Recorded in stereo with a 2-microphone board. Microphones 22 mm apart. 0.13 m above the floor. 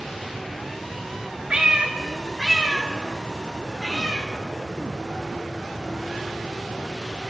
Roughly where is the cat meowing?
Right.